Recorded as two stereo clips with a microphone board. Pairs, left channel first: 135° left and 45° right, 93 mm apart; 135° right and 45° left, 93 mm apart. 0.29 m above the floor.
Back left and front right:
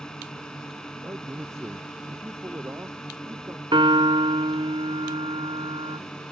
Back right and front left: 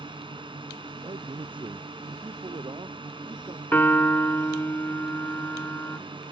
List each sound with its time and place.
0.0 s a drone: 50° left
1.0 s a man speaking: 15° left
3.7 s a piano: 70° right